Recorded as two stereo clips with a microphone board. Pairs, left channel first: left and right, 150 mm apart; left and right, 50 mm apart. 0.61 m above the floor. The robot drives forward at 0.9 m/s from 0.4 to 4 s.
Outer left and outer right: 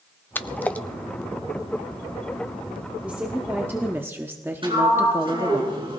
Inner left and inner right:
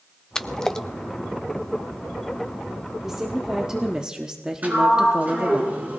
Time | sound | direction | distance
0.3 | a splash | 15° left (ahead or behind) | 0.6 m
3.0 | a woman speaking | 10° right (ahead or behind) | 1.6 m
4.6 | a sliding door | 35° right (ahead or behind) | 4 m